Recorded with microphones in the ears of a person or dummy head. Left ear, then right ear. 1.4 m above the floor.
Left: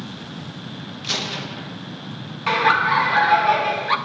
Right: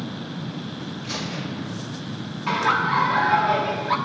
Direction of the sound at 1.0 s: 60° left (ahead or behind).